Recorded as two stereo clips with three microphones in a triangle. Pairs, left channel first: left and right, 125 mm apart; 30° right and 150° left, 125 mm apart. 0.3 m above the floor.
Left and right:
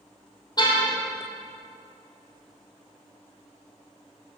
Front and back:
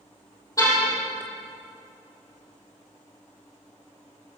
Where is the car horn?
35° left, 4 m.